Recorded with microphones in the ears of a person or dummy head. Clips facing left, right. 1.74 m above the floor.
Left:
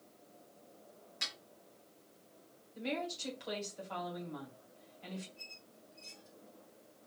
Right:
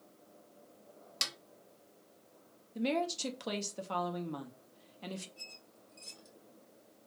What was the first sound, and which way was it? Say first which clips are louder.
A snare drum: right 5 dB; 85° right.